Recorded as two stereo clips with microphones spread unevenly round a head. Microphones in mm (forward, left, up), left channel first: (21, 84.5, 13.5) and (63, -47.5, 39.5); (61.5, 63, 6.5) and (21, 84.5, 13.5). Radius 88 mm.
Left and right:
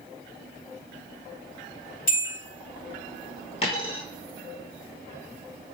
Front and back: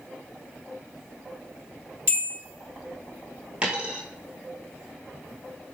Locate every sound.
2.1 s a bell: 115° left, 2.0 m
3.6 s a dropped coin: 145° left, 1.1 m